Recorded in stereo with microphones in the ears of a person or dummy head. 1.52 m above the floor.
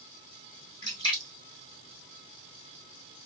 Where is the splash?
20° left (ahead or behind), 2 m.